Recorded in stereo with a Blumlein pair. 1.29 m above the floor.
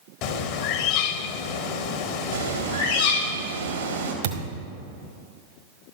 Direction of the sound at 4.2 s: 55° right.